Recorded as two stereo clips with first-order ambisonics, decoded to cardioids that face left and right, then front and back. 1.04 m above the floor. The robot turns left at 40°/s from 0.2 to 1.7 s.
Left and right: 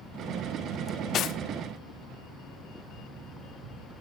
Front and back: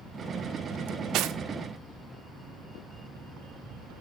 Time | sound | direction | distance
0.9 | cutlery clinking | 155° left | 0.8 m